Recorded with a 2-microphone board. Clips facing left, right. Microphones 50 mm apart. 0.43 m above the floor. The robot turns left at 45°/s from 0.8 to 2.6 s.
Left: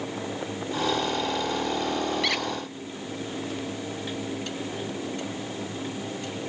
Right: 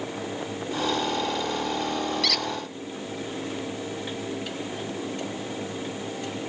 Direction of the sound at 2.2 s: 20° left (ahead or behind).